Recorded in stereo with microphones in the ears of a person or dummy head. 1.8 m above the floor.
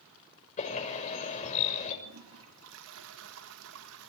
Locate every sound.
0.6 s a bird: 40° left (ahead or behind), 6.5 m
2.0 s a toilet flushing: 80° right, 2.5 m